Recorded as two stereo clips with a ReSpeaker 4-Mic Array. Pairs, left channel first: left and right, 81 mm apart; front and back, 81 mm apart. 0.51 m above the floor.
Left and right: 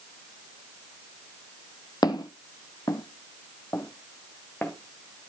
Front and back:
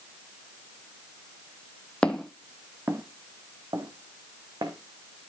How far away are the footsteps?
About 0.9 m.